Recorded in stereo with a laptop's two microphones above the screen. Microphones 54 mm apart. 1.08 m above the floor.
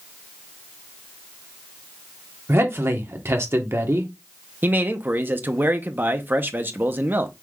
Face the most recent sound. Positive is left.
turn(degrees=-40)  # may be behind; listen again after turning